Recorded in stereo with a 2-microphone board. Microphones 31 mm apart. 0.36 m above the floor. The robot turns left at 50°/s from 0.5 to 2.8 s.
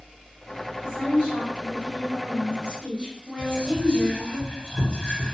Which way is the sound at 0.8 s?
45° right.